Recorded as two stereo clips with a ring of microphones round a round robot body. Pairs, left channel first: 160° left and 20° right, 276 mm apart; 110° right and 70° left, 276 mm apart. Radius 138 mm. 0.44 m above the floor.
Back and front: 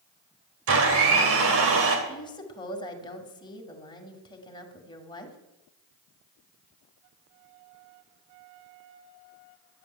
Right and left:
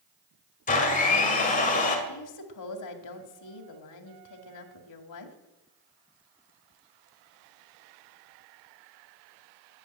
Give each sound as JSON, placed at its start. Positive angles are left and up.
{"t": 0.7, "sound": "a blender", "azimuth_deg": -55, "distance_m": 2.5}
{"t": 2.1, "sound": "a woman speaking", "azimuth_deg": -130, "distance_m": 2.0}